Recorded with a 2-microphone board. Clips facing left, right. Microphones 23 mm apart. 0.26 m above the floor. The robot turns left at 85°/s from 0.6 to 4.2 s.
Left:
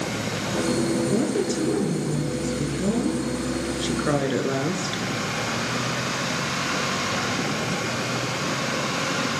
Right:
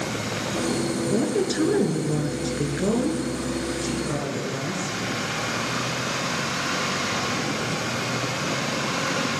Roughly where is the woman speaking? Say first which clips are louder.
Even; ahead.